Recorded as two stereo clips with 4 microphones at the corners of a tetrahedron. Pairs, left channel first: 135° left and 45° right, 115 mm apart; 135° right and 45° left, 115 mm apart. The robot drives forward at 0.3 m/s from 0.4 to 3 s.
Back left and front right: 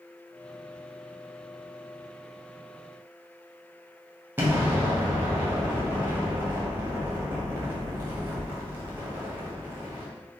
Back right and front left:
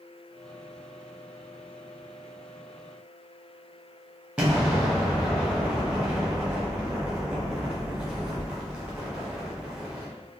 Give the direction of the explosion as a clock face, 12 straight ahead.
1 o'clock.